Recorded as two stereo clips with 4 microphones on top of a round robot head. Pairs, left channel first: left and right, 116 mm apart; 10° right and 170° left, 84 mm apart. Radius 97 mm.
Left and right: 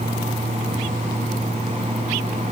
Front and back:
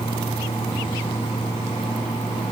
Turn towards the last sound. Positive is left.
No sound to turn to.